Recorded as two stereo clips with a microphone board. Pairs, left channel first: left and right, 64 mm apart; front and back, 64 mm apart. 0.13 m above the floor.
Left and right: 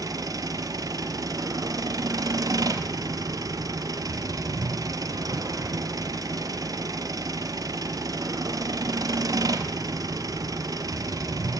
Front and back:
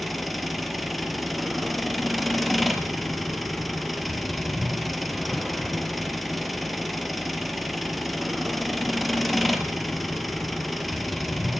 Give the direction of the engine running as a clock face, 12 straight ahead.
3 o'clock.